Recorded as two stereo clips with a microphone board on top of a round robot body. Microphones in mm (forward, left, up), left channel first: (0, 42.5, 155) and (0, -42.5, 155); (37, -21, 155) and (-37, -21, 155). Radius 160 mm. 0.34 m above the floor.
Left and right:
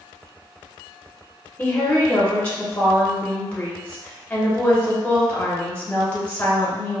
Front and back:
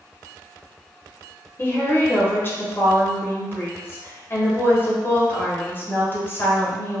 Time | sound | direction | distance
1.6 | a woman speaking | 30° left | 1.1 m